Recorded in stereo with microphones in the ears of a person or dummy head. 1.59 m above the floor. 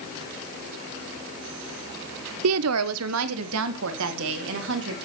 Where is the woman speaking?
75° right (ahead or behind), 0.6 m; by 5.0 s 70° right (ahead or behind), 3 m.